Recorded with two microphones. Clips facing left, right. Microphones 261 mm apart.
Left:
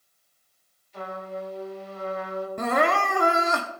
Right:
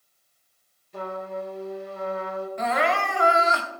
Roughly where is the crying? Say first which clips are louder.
Left 2 dB; left.